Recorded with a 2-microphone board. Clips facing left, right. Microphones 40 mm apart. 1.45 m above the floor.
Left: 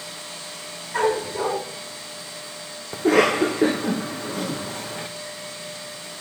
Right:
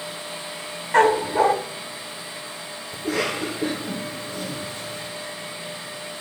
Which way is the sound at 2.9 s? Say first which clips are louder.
Left 8 dB; 65° left (ahead or behind).